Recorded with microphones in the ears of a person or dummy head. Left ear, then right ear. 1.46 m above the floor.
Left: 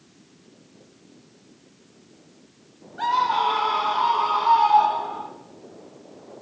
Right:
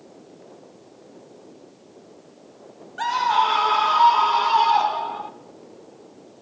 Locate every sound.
3.0 s a scream: 85° right, 4 m; by 5.3 s 55° right (ahead or behind), 5 m